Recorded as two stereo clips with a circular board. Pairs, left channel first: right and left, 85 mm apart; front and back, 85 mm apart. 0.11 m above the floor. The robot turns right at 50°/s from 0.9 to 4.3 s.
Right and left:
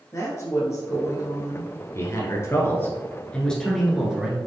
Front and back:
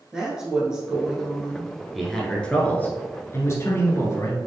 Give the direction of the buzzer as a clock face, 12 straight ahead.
No buzzer in this recording.